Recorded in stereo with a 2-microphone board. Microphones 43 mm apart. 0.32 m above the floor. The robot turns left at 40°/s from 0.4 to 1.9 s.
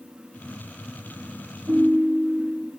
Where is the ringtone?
70° right (ahead or behind), 3 m; by 2.7 s 75° right (ahead or behind), 3 m.